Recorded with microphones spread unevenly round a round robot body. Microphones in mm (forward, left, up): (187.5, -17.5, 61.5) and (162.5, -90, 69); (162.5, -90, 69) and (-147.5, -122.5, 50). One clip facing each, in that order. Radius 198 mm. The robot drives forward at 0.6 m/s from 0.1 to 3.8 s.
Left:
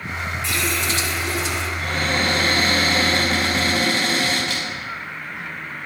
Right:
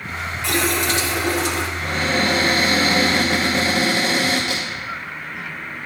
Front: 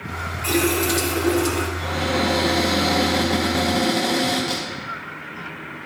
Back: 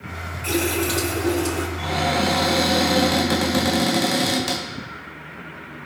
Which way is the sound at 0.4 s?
75° right.